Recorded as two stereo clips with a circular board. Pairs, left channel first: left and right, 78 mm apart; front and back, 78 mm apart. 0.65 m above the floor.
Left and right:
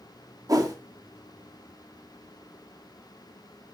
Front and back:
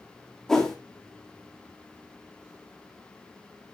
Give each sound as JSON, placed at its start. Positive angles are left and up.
{"t": 0.5, "sound": "a whoosh", "azimuth_deg": -80, "distance_m": 1.6}